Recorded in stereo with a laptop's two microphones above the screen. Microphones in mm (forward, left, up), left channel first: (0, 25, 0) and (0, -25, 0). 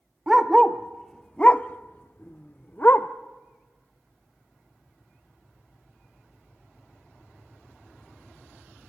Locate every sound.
0.3 s a dog barking: 10° right (ahead or behind), 1.0 m; by 3.1 s 40° left (ahead or behind), 1.3 m